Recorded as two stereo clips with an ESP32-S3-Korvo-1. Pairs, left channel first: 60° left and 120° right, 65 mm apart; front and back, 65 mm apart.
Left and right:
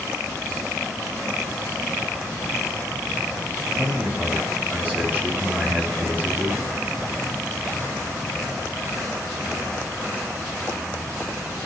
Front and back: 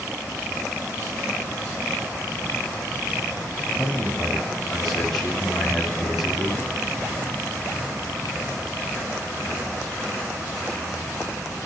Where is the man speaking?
75° right, 1.1 m.